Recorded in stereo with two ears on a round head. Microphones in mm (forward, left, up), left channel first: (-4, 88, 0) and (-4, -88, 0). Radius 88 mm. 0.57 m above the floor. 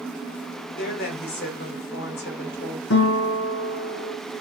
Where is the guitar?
60° left (ahead or behind), 3 m.